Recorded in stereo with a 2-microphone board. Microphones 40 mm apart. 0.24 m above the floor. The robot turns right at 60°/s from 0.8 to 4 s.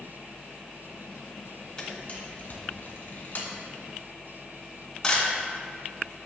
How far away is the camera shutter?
About 2.5 m.